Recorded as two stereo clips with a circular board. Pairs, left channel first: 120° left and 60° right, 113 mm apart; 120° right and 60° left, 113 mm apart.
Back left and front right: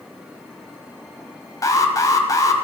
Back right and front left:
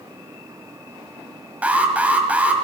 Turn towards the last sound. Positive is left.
turn(degrees=125)